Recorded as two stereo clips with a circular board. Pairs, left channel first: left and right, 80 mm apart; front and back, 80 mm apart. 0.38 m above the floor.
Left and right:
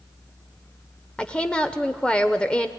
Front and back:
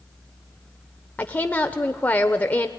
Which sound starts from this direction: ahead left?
A woman speaking, at 1.2 s.